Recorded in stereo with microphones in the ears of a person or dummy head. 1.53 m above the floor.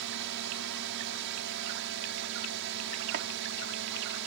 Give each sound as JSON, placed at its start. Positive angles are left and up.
{"t": 0.0, "sound": "a drone", "side_deg": -65}
{"t": 3.1, "sound": "chopping", "side_deg": -55}